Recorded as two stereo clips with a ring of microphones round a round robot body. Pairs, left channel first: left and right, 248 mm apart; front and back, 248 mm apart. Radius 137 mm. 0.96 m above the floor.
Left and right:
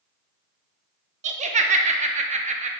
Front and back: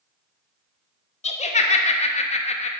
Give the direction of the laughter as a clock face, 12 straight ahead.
2 o'clock.